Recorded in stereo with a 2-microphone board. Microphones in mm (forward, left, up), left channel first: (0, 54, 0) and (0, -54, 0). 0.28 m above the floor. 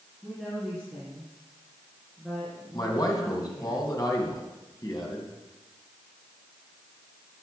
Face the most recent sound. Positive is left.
turn(degrees=35)  # may be behind; listen again after turning